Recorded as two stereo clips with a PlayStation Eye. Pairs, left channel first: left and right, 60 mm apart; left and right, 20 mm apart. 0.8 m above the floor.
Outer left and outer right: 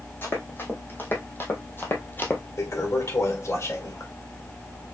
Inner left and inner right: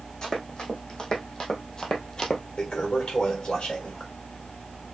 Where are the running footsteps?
35° left (ahead or behind), 2.5 m; by 2.4 s 30° left (ahead or behind), 1.1 m.